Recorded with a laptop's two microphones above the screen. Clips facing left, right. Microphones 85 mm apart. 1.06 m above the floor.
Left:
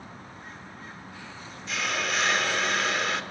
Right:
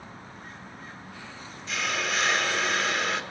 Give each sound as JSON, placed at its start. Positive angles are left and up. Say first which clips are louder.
{"t": 1.7, "sound": "a hiss", "louder": "even", "side_deg": 0, "distance_m": 1.3}